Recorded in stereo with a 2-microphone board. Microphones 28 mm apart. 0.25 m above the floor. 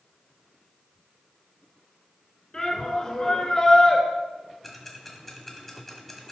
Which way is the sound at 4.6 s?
10° left (ahead or behind).